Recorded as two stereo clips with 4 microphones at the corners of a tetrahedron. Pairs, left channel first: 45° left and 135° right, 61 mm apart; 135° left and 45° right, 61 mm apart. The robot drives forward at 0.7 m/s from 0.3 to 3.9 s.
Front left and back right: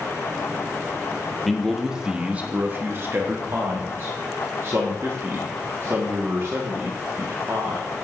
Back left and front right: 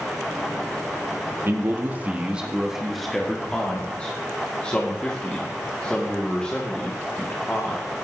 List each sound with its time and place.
1.4 s a man speaking: 40° right, 1.1 m; by 7.9 s 155° right, 1.5 m